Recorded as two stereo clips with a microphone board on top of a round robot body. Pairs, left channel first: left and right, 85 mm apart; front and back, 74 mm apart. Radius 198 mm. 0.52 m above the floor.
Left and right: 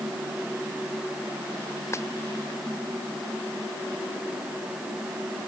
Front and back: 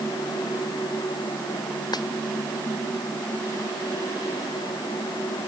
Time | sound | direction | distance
1.9 | a dropped coin | 30° left | ?